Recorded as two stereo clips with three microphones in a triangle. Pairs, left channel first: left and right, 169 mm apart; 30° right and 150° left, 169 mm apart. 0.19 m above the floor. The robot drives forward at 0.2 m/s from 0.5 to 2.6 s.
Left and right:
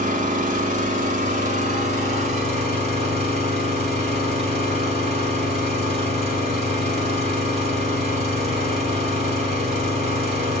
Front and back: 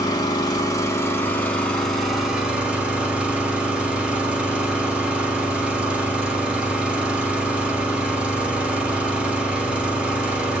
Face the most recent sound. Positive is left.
turn(degrees=-130)